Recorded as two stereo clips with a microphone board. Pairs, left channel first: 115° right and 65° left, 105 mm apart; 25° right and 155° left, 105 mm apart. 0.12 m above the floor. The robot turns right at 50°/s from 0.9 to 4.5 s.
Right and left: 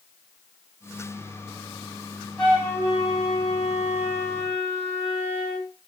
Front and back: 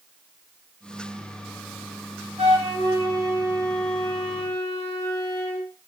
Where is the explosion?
I don't hear an explosion.